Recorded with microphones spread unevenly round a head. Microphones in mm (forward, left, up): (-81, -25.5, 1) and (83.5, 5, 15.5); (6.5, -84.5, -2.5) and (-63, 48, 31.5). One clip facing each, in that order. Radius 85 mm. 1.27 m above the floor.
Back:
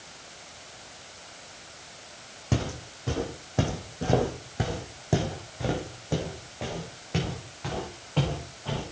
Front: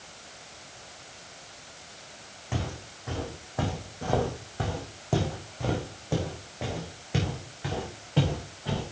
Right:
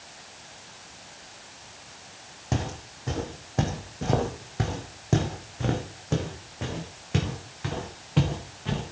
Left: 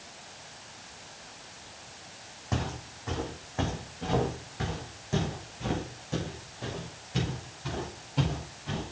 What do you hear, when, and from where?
2.5 s footsteps: 130° right, 3 m; by 8.8 s 60° right, 5.5 m